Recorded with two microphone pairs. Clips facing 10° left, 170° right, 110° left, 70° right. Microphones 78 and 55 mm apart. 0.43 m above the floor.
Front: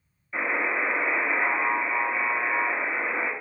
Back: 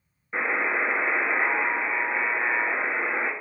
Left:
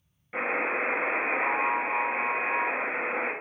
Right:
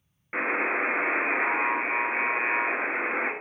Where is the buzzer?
120° right, 0.9 m.